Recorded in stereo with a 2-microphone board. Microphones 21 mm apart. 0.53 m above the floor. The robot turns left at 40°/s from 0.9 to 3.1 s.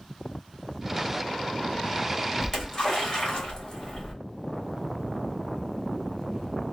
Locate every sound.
2.4 s a splash: 15° left (ahead or behind), 1.6 m; by 4.1 s 40° left (ahead or behind), 1.6 m